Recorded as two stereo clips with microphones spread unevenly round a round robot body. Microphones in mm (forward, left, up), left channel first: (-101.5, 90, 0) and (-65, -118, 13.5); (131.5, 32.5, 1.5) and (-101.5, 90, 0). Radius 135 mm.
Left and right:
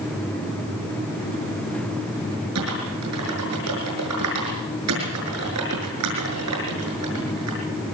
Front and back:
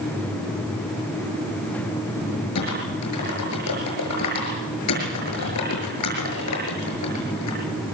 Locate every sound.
2.5 s typing on a keyboard: 55° right, 6.5 m